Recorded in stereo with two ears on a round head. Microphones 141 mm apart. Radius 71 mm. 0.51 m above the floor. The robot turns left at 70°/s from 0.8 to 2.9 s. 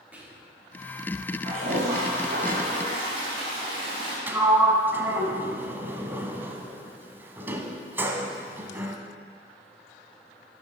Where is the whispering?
10° right (ahead or behind), 1.1 m.